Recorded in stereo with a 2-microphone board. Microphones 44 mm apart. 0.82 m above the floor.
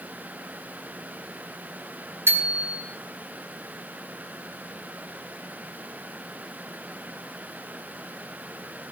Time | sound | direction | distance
2.3 | a bicycle bell | 80° right | 4 m